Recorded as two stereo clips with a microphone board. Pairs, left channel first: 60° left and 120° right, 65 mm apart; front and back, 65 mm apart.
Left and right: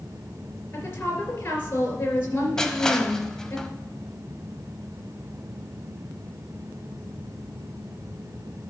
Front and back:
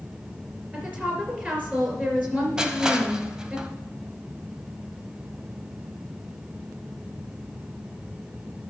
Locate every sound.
0.7 s a woman speaking: 115° left, 3.5 m
2.6 s crushing: 125° left, 0.8 m